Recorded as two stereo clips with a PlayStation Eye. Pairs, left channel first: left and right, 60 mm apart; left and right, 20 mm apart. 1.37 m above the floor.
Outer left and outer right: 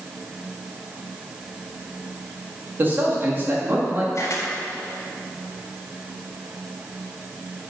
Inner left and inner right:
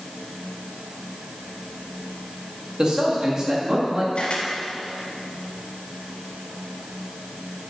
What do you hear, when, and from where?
2.8 s a man speaking: 35° right (ahead or behind), 2 m
4.2 s a camera shutter: 60° left (ahead or behind), 1.9 m